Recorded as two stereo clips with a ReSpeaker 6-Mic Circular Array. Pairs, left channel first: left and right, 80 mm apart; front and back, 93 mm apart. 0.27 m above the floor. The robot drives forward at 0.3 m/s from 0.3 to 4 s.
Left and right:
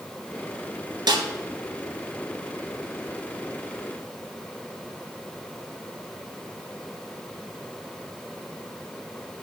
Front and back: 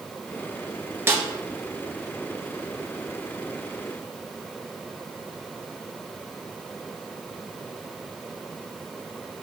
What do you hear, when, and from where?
1.1 s a snare drum: 115° right, 1.3 m